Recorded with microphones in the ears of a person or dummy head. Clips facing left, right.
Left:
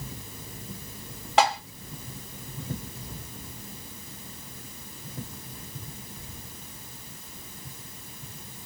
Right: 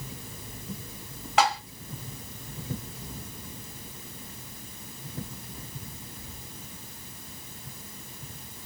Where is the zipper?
No zipper in this recording.